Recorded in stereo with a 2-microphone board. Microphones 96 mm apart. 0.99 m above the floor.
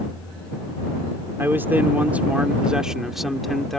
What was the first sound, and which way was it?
A man speaking, 25° right (ahead or behind).